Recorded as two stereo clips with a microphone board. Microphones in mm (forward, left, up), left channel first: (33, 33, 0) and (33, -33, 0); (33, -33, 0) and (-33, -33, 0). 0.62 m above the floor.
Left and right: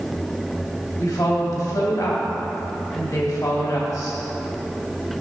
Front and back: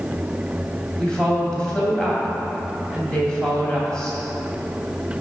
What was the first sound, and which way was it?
A woman speaking, 80° left.